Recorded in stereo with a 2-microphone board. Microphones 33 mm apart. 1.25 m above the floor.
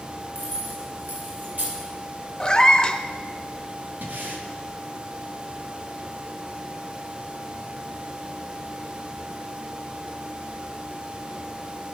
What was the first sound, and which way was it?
Keys jangling, 75° right (ahead or behind).